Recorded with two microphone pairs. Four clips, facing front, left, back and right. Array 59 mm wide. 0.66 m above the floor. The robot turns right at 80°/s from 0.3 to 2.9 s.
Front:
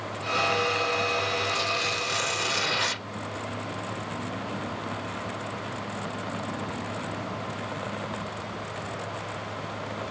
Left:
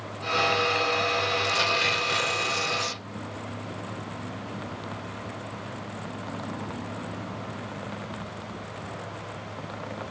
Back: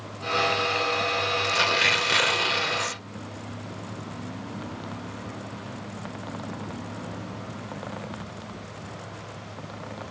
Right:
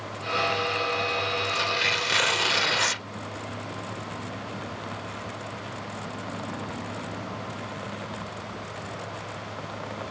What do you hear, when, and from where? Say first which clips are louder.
1.4 s tearing paper: left 1 dB, back 5 dB; 165° left; by 3.0 s 75° right